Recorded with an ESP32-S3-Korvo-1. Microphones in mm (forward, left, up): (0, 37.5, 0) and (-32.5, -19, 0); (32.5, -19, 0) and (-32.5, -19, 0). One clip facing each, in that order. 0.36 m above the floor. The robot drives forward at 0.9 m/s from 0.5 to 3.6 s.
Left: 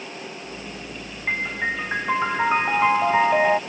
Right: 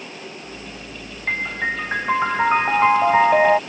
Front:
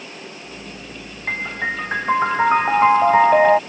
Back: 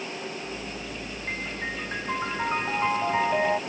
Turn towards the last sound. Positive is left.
turn(degrees=-45)